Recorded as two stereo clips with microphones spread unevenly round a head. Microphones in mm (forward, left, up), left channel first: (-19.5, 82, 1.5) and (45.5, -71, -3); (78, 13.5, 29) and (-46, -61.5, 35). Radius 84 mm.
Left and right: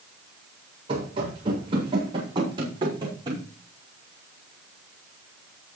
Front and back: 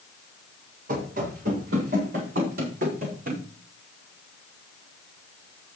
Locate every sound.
0.9 s running footsteps: 125° right, 8 m; by 3.4 s 130° right, 5.5 m